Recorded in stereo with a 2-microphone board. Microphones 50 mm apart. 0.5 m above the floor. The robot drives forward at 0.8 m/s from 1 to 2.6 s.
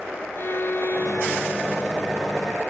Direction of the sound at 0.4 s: 55° left (ahead or behind).